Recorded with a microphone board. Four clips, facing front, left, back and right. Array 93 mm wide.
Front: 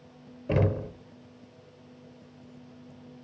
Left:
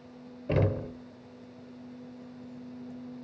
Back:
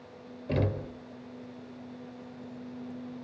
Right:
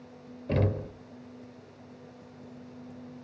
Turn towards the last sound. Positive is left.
turn(degrees=30)